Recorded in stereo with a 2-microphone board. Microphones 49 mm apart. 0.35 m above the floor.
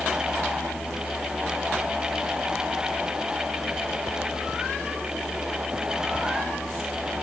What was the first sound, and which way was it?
Only background noise.